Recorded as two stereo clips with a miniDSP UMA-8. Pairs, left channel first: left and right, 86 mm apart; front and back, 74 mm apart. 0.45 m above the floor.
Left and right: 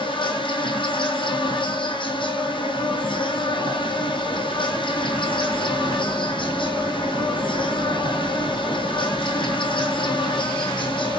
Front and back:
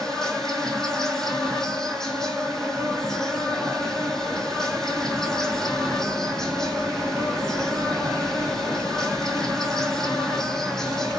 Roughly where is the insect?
Left.